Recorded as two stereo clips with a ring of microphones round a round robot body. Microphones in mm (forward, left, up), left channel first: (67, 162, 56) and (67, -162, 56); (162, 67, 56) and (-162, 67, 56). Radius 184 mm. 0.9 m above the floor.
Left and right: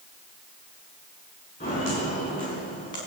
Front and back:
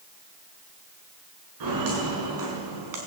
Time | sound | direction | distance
1.6 | footsteps | 160° left | 6.5 m